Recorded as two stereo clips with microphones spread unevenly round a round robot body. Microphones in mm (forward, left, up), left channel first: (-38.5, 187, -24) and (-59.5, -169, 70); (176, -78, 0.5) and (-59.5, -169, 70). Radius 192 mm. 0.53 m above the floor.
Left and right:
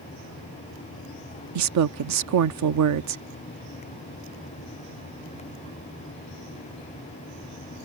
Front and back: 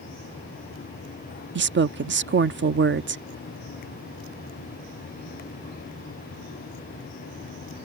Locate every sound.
1.6 s a woman speaking: 120° right